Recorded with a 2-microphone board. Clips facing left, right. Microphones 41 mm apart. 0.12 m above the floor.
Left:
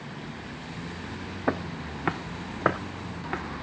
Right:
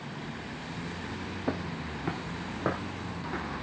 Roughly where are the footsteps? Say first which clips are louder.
Left 5 dB; left.